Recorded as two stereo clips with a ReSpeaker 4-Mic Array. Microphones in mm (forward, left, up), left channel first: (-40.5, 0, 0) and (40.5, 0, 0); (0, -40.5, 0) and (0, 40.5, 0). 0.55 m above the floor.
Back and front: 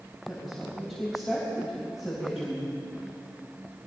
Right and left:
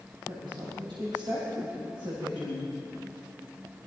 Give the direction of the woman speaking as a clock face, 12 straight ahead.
9 o'clock.